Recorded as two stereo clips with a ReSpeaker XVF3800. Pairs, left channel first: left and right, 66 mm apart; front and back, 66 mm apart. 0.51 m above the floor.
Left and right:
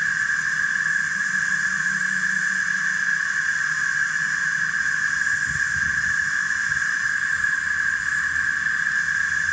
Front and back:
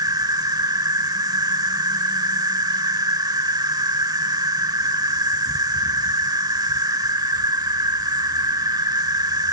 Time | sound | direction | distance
0.0 | an insect | 175° right | 0.8 m